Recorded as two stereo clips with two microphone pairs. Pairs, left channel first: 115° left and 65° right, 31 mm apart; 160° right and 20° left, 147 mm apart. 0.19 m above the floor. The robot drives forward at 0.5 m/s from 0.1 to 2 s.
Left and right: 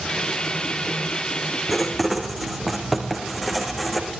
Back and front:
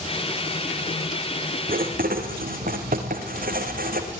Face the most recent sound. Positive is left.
turn(degrees=25)